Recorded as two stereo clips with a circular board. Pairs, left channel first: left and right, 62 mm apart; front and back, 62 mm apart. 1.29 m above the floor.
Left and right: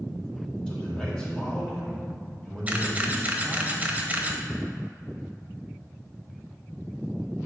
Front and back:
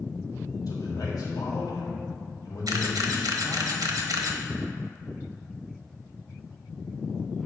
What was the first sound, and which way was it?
A man speaking, 15° left.